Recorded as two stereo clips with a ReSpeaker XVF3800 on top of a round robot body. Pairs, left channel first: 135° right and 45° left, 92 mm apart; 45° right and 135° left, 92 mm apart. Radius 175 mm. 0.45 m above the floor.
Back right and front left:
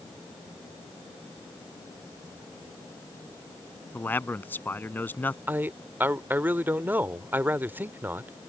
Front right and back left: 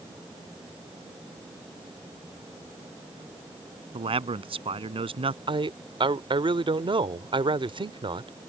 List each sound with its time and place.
3.9 s a man speaking: 155° left
5.5 s a man speaking: 115° left